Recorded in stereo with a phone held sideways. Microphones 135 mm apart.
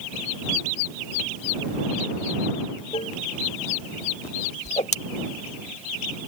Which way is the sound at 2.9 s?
45° left (ahead or behind).